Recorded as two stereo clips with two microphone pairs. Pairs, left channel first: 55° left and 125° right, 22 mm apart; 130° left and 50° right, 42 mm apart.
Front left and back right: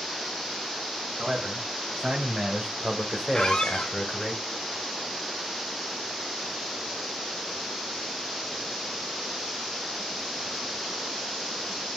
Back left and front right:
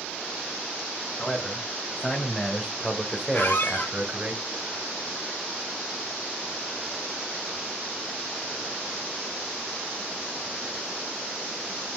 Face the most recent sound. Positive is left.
turn(degrees=95)